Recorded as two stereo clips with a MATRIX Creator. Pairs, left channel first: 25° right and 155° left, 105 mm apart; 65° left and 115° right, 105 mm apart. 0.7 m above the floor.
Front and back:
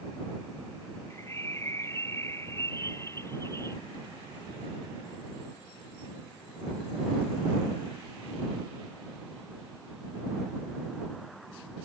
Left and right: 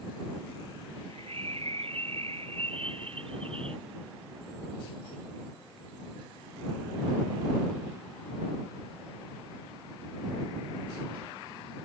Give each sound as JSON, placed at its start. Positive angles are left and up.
{"t": 1.1, "sound": "a bird", "azimuth_deg": -85}